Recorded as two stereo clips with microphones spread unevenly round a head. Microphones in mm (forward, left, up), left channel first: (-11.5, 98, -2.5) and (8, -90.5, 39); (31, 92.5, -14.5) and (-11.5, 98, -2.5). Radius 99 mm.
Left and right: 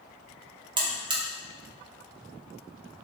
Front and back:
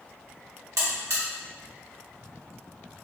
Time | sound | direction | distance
0.8 | a buzzer | 155° right | 0.6 m